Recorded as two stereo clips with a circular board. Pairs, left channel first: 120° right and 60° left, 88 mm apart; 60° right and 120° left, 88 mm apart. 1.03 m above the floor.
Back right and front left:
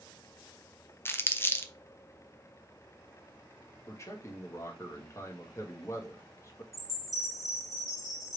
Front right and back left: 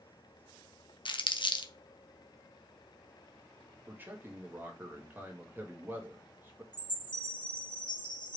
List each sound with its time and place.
1.1 s crumpling: 60° right, 0.6 m
3.9 s a man speaking: 175° right, 1.4 m
6.7 s a chime: 30° right, 1.9 m